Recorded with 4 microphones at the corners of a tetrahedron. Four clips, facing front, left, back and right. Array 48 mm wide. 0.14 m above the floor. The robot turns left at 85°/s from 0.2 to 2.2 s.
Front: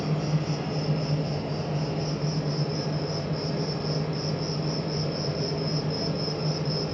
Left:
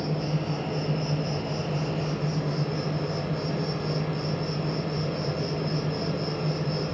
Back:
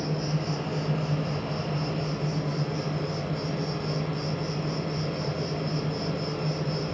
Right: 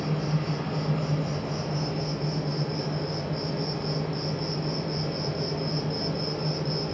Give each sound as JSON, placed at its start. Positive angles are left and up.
{"t": 0.0, "sound": "an insect", "azimuth_deg": -65, "distance_m": 1.5}